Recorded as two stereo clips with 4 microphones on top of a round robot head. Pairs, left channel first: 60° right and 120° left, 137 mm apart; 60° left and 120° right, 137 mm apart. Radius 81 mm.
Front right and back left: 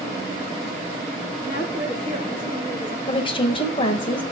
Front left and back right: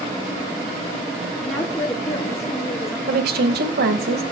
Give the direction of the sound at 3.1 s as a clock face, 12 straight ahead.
4 o'clock.